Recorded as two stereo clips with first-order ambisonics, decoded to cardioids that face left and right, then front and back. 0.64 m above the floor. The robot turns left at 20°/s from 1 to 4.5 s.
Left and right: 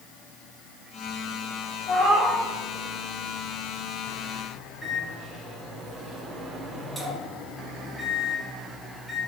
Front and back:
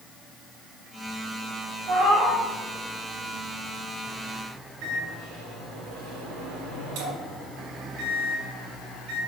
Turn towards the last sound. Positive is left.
turn(degrees=-175)